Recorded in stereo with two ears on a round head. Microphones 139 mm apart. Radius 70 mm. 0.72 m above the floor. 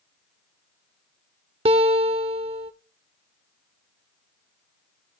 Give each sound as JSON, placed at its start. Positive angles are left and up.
{"t": 1.6, "sound": "a guitar", "side_deg": -35, "distance_m": 0.7}